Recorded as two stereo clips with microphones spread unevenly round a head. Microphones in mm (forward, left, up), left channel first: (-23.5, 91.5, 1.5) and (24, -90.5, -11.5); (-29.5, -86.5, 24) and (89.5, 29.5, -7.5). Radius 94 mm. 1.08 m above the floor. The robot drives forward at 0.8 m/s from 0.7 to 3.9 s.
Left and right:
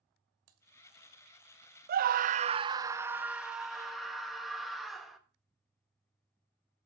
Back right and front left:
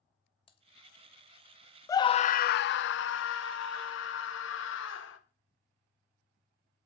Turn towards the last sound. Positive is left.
turn(degrees=-165)